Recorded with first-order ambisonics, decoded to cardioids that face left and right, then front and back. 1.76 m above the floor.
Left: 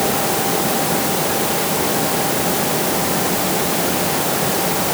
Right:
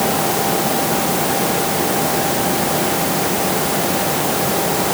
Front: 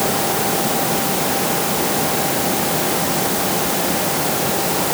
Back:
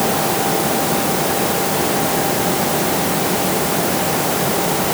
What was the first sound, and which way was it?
Only background noise.